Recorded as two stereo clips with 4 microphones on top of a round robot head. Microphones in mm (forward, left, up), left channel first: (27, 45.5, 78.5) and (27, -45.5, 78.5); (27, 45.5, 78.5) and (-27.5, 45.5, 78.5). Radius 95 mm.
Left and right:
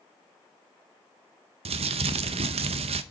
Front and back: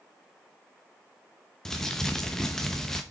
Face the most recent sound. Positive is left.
turn(degrees=-85)